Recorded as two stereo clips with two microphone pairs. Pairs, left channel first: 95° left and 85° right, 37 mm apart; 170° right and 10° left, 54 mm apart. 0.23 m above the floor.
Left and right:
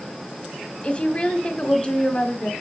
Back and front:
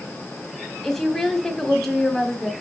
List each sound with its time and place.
0.8 s a woman speaking: 115° left, 1.4 m